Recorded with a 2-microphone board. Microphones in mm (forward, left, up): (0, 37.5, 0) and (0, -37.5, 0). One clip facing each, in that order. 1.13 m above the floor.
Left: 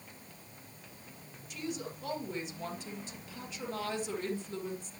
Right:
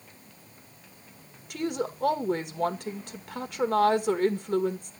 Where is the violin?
I don't hear a violin.